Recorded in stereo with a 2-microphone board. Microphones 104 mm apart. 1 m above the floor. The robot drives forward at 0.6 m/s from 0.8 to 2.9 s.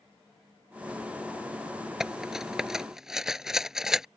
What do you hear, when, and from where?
2.0 s cutlery clinking: 5° right (ahead or behind)